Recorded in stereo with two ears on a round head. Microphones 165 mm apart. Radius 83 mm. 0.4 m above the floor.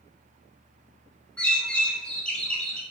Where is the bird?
5° left (ahead or behind), 0.8 m.